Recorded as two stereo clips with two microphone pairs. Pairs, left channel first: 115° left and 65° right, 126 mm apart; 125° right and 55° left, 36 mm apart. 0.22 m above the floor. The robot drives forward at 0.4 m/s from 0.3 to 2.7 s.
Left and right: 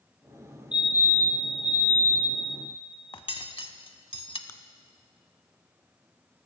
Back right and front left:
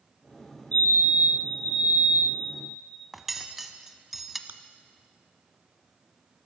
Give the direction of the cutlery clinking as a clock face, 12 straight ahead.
7 o'clock.